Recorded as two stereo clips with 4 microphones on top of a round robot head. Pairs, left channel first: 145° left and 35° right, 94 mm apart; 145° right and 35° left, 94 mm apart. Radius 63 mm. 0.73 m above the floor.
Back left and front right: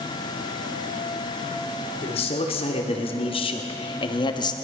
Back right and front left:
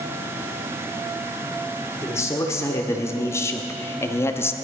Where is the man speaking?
155° left, 2.5 m; by 4.5 s 160° left, 1.1 m.